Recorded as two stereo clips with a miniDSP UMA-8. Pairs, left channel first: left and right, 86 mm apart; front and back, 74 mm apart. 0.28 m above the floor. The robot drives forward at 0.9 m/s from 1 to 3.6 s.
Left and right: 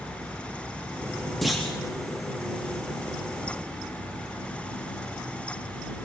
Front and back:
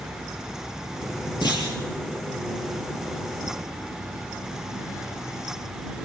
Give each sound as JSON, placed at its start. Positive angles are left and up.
{"t": 1.4, "sound": "a clunk", "azimuth_deg": 0, "distance_m": 5.5}